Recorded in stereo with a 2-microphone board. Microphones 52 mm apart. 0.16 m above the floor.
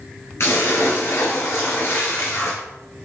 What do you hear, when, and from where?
0.4 s a splash: 55° left (ahead or behind), 3 m